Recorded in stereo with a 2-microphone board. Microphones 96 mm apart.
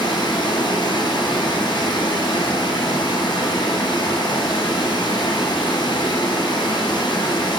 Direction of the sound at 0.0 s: 50° left (ahead or behind).